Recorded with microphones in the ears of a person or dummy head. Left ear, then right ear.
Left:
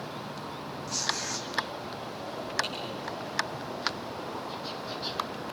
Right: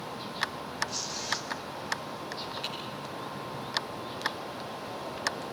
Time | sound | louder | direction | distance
0.9 | tearing paper | left 2 dB | 65° left (ahead or behind) | 2.5 m
2.6 | typing on a keyboard | left 1 dB | 60° left (ahead or behind) | 9 m